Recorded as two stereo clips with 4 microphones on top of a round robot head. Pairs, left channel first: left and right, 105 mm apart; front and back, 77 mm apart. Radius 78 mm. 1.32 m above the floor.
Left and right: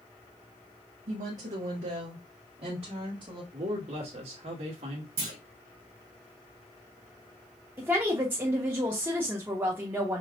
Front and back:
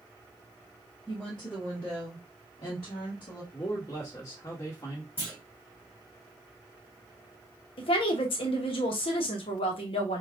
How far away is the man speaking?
About 1.4 m.